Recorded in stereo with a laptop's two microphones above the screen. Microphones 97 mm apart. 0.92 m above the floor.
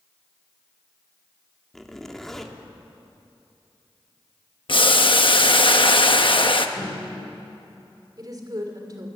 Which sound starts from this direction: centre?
A zipper, at 1.7 s.